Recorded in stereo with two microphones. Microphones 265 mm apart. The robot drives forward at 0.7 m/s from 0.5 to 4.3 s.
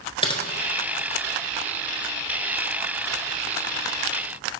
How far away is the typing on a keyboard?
About 0.8 m.